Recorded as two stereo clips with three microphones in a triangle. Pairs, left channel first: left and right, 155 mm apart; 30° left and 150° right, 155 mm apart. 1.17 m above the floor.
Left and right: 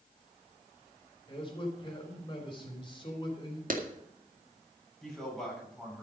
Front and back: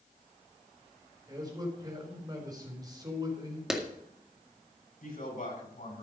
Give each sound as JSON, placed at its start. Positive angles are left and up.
{"t": 1.3, "sound": "a man speaking", "azimuth_deg": 150, "distance_m": 3.5}
{"t": 3.7, "sound": "a clap", "azimuth_deg": -65, "distance_m": 1.9}
{"t": 5.0, "sound": "a man speaking", "azimuth_deg": 5, "distance_m": 8.0}